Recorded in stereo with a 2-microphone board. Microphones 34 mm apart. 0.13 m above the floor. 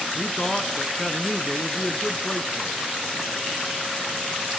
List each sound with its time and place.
0.1 s a man speaking: 15° left (ahead or behind), 1.1 m